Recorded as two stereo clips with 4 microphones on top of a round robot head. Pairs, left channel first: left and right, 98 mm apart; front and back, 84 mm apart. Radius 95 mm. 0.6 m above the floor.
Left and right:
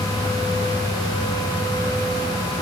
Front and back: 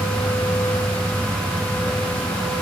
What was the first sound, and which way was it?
Only background noise.